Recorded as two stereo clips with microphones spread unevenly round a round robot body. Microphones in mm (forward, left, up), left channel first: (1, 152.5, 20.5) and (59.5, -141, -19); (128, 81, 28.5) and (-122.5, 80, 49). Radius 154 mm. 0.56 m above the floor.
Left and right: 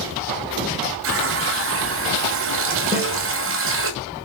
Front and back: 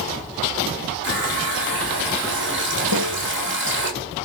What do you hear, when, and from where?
1.0 s a running tap: 125° right, 2 m
2.9 s a snare drum: 165° right, 4 m